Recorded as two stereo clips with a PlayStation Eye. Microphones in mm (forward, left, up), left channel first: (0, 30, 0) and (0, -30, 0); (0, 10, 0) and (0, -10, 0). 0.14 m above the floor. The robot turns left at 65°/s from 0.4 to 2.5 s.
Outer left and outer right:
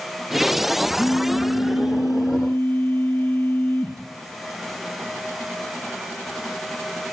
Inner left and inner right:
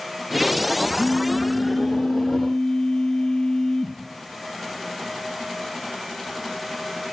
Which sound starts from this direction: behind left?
A phone buzzing, at 1.0 s.